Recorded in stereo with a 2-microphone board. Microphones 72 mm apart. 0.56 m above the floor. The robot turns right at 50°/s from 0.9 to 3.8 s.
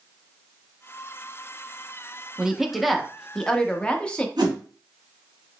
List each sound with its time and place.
2.4 s a woman speaking: 10° right (ahead or behind), 0.6 m; by 4.3 s 15° left (ahead or behind), 0.6 m
4.4 s a whoosh: 80° right, 1.8 m